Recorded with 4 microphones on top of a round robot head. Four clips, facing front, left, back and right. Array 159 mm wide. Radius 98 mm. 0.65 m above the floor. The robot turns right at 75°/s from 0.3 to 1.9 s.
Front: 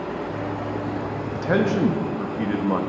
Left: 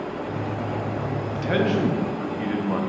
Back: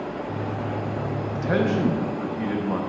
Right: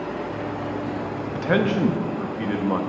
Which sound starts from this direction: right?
A man speaking, at 1.4 s.